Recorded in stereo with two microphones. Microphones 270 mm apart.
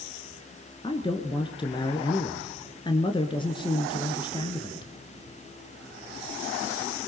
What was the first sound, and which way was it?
A man speaking, 20° left (ahead or behind).